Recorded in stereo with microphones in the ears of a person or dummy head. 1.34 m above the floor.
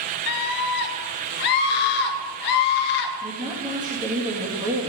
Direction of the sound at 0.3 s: 55° left (ahead or behind).